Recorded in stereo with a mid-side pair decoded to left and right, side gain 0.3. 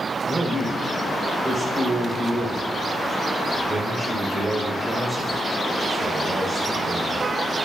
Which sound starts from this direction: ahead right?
A man speaking, at 0.3 s.